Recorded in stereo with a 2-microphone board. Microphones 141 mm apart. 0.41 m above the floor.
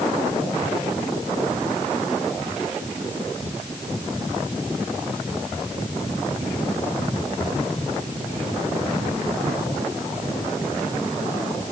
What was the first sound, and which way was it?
Only background noise.